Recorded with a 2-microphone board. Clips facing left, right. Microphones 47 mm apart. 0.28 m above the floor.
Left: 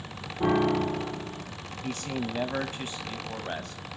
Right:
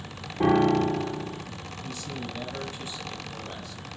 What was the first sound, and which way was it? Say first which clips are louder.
A piano: right 3 dB; 50° right (ahead or behind).